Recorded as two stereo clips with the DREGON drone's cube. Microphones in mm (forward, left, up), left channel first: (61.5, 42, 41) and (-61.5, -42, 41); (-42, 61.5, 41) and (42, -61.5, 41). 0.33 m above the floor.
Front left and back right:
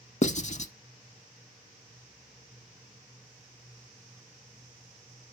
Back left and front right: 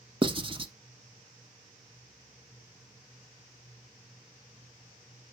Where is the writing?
Straight ahead, 0.7 m.